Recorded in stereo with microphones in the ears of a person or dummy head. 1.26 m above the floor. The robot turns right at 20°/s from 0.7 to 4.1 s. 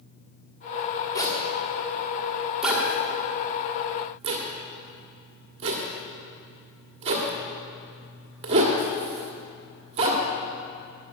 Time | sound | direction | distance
1.1 | a zipper | 25° left (ahead or behind) | 1.6 m